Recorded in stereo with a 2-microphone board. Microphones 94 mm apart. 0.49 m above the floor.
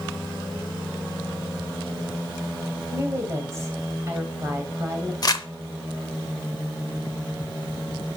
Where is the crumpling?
45° left (ahead or behind), 0.7 m.